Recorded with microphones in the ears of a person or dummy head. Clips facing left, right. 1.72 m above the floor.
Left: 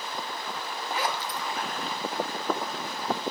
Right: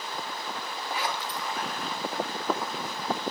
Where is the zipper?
45° left (ahead or behind), 4.5 m.